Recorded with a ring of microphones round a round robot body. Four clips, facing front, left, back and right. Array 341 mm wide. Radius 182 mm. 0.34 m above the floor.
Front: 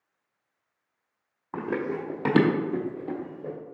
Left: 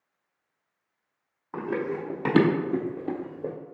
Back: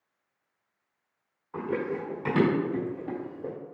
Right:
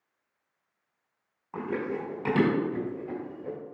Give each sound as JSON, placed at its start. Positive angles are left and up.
{"t": 1.5, "sound": "running footsteps", "azimuth_deg": 15, "distance_m": 1.4}